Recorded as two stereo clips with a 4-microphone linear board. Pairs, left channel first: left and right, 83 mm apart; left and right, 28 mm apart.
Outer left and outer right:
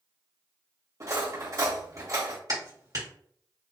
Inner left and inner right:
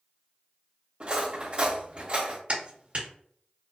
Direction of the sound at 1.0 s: 40° right (ahead or behind).